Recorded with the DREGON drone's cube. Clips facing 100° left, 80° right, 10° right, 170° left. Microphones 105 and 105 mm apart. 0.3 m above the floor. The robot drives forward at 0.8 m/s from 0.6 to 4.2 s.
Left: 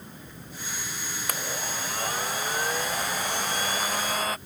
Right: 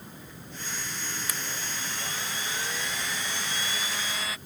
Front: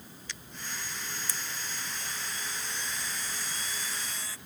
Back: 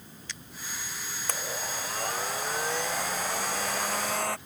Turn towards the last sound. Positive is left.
turn(degrees=145)